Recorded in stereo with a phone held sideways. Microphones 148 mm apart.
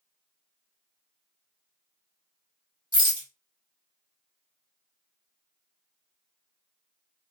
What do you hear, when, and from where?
2.9 s a rattle: 30° left (ahead or behind), 1.0 m